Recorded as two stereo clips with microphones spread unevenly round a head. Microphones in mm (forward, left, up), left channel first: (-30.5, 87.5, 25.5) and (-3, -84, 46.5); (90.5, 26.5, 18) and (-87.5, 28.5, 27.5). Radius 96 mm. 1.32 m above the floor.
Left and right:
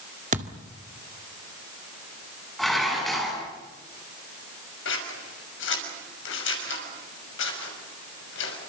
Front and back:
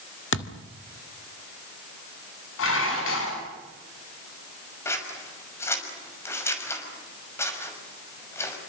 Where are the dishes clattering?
10° left, 8.5 m.